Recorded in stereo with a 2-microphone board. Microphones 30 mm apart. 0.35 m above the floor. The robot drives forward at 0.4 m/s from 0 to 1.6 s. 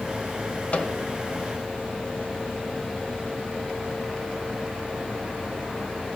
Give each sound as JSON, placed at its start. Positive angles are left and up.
{"t": 0.7, "sound": "a microwave", "side_deg": 45, "distance_m": 1.2}